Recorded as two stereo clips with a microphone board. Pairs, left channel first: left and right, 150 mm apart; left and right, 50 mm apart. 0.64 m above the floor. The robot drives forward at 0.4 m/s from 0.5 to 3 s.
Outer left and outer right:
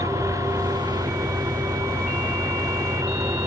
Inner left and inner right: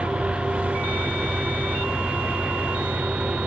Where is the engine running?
20° right (ahead or behind).